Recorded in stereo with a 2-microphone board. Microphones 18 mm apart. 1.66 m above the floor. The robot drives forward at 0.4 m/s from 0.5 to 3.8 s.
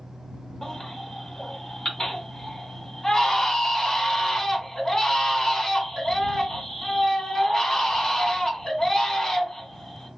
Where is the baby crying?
30° left (ahead or behind), 1.5 m; by 10.1 s 25° left (ahead or behind), 1.7 m.